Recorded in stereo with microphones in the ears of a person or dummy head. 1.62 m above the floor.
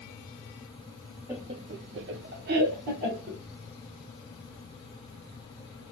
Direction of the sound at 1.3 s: 5° right (ahead or behind).